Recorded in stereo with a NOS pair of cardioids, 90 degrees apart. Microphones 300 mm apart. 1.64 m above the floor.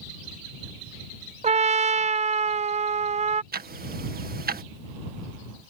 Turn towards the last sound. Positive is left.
turn(degrees=-30)